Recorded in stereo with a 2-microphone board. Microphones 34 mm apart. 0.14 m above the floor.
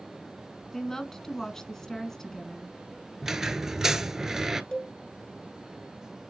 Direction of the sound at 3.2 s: 15° right (ahead or behind).